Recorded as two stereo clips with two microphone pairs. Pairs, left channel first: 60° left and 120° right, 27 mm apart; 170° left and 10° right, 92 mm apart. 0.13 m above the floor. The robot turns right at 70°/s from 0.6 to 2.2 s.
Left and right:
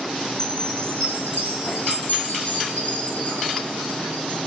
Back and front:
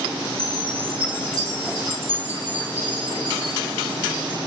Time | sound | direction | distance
0.4 | a chime | 15° right | 4 m